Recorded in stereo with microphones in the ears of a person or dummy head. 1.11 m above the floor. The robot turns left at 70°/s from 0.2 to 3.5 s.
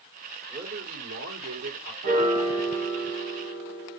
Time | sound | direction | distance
0.5 | a man speaking | 40° right | 2.5 m
2.0 | a piano | 135° right | 2.5 m